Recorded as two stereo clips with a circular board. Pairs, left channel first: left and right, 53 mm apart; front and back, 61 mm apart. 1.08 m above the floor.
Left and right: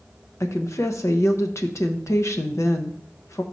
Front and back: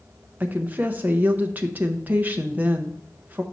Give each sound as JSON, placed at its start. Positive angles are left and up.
{"t": 0.4, "sound": "a woman speaking", "azimuth_deg": 120, "distance_m": 0.7}